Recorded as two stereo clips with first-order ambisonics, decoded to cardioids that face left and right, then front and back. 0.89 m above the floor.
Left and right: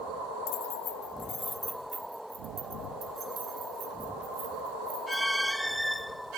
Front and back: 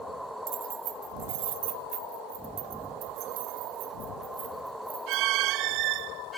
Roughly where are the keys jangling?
Behind left.